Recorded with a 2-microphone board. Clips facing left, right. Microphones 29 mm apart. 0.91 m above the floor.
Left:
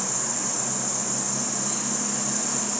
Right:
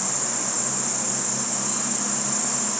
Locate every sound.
0.0 s an insect: 65° right (ahead or behind), 0.7 m